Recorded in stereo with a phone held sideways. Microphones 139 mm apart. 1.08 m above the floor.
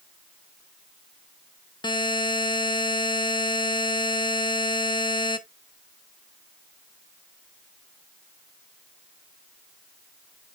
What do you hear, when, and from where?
1.8 s a buzzer: 35° left (ahead or behind), 1.1 m